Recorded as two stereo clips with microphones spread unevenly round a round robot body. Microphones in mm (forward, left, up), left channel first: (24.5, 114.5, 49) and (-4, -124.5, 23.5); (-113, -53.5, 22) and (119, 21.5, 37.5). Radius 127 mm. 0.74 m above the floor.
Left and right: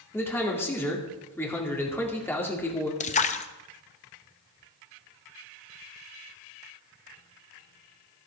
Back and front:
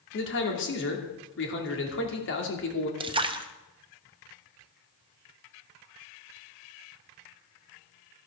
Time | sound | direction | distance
0.1 | a man speaking | 165° left | 2.5 m
3.0 | a splash | 65° left | 0.8 m